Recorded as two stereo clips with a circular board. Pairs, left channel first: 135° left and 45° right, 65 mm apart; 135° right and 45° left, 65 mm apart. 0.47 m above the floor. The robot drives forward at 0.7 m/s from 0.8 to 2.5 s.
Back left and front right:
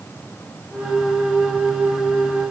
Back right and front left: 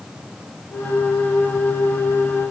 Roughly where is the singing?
No singing in this recording.